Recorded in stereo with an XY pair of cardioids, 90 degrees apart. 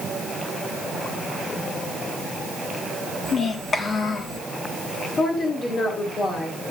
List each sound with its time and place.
3.2 s a child speaking: 55° left, 1.6 m
5.2 s a woman speaking: 60° left, 3 m